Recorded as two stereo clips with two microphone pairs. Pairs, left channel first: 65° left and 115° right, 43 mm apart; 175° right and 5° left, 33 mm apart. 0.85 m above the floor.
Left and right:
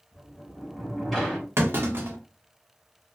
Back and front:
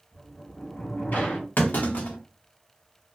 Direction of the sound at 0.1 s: 155° left.